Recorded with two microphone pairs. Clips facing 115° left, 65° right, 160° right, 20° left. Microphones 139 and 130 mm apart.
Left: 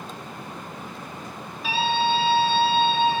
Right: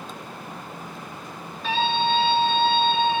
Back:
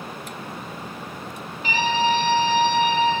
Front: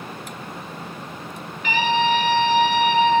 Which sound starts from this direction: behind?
A scream, at 1.6 s.